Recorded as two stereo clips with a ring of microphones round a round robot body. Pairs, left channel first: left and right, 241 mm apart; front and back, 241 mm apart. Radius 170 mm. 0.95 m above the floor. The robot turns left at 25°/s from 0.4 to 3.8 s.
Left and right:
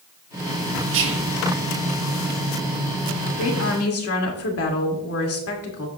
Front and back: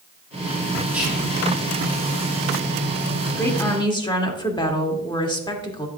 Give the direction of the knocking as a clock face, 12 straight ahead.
No knocking in this recording.